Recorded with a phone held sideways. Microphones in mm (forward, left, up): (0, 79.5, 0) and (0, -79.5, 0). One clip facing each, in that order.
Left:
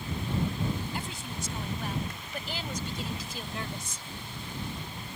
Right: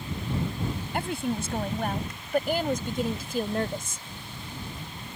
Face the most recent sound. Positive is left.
turn(degrees=-50)  # may be behind; listen again after turning